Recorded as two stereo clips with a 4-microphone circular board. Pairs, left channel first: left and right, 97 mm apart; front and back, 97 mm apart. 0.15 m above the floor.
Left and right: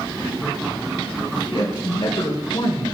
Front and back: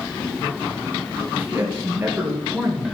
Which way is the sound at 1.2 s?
115° left.